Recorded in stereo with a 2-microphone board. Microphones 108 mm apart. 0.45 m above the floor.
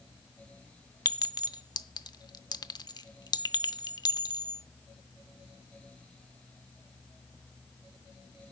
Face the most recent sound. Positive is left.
turn(degrees=40)  # may be behind; listen again after turning